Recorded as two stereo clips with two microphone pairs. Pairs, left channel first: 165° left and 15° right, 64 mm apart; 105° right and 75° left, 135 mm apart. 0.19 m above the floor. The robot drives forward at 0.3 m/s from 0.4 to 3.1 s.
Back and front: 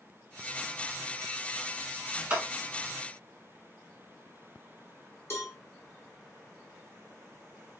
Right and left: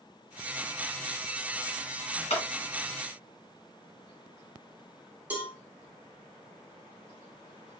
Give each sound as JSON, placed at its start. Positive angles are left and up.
{"t": 2.3, "sound": "a clap", "azimuth_deg": -80, "distance_m": 1.6}
{"t": 5.3, "sound": "a cowbell", "azimuth_deg": 145, "distance_m": 0.8}